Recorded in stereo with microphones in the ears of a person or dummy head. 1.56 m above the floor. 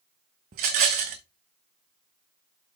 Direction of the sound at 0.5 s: 45° right (ahead or behind).